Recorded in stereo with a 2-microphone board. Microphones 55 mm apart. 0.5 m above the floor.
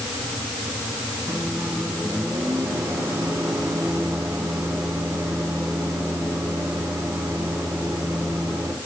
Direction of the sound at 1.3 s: 80° right.